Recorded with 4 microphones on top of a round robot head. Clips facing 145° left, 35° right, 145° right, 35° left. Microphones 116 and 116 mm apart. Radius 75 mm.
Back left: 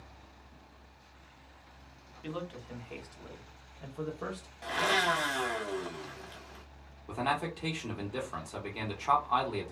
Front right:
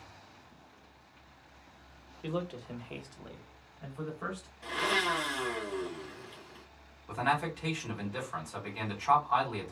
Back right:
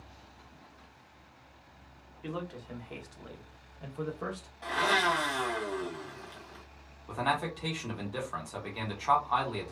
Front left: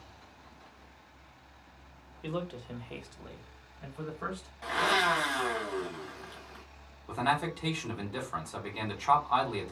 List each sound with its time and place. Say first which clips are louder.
2.2 s a man speaking: front right 4 dB, front left 2 dB; 20° right, 0.9 m; by 4.5 s straight behind, 0.9 m
4.6 s a blender: back left 2 dB, even; 130° left, 1.3 m
7.1 s a man speaking: front right 1 dB, front left 1 dB; 130° left, 1.3 m